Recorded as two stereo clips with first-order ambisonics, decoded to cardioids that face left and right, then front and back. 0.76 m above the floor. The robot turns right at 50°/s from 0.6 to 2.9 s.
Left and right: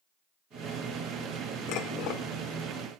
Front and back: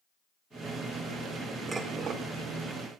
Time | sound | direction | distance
1.7 | dishes clattering | 105° left | 1.4 m